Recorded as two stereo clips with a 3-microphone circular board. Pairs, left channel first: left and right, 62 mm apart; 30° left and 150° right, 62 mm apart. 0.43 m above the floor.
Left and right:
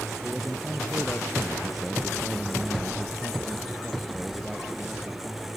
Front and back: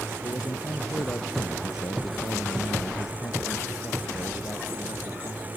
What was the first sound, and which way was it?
A man speaking, 5° left.